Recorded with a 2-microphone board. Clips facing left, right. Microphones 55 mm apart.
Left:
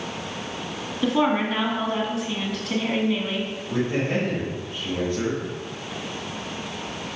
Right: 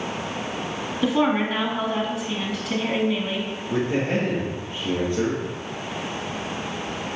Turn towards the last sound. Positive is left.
turn(degrees=-15)  # may be behind; listen again after turning